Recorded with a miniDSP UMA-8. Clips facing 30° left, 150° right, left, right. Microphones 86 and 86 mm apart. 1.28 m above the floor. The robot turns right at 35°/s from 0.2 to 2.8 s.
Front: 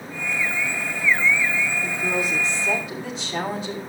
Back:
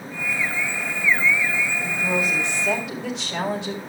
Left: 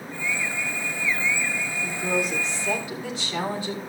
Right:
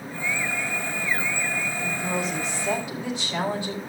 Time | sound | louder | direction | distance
1.8 | a woman speaking | back 1 dB, left 3 dB | 160° left | 6.5 m